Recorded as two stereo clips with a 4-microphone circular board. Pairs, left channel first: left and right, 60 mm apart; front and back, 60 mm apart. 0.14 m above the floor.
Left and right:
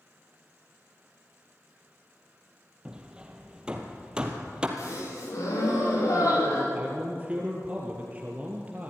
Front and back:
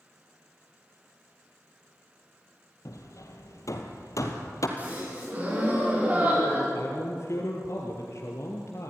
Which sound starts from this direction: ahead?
Hammering, at 2.9 s.